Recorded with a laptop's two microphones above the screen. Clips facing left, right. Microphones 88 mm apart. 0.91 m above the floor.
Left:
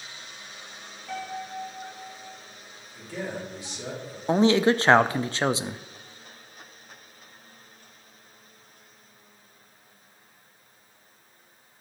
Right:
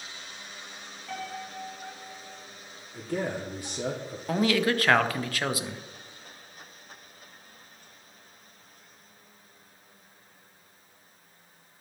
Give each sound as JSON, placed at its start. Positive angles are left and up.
{"t": 1.1, "sound": "a piano", "side_deg": 0, "distance_m": 1.6}
{"t": 2.9, "sound": "a man speaking", "side_deg": -55, "distance_m": 1.9}
{"t": 4.3, "sound": "a man speaking", "side_deg": 30, "distance_m": 0.5}